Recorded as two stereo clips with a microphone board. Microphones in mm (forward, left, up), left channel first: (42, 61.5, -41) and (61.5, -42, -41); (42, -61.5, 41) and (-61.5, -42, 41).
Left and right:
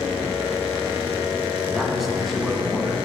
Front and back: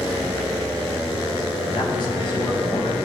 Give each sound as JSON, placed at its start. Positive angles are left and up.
{"t": 1.7, "sound": "a man speaking", "azimuth_deg": 10, "distance_m": 2.0}